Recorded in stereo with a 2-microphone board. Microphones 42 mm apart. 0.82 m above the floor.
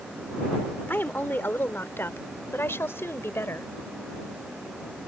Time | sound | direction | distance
0.9 | a woman speaking | 55° left (ahead or behind) | ?